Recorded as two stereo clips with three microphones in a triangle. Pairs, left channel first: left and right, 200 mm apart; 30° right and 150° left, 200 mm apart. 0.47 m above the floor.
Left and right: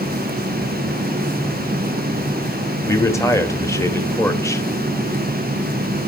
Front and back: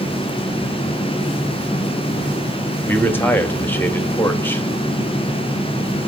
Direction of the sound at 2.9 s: 35° left.